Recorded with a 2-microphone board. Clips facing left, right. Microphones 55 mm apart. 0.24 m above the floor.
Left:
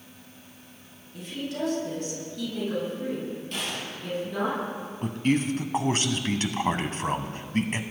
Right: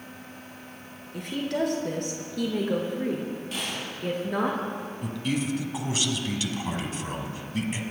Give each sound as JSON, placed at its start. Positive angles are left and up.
{"t": 1.1, "sound": "a woman speaking", "side_deg": -70, "distance_m": 4.0}
{"t": 3.5, "sound": "a gunshot", "side_deg": -5, "distance_m": 6.0}
{"t": 5.0, "sound": "a man speaking", "side_deg": 45, "distance_m": 1.4}